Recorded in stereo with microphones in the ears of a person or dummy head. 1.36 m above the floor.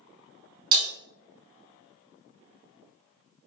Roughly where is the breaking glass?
Right.